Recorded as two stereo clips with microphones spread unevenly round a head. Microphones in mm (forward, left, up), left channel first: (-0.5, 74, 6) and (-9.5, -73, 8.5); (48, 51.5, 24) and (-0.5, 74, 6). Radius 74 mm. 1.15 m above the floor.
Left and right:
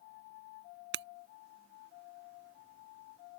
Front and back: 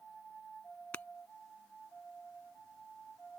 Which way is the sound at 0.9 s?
105° right.